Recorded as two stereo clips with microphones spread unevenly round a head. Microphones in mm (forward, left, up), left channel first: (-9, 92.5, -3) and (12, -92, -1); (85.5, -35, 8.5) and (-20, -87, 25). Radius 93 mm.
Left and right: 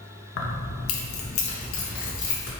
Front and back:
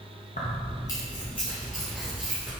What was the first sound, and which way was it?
Keys jangling, 85° left.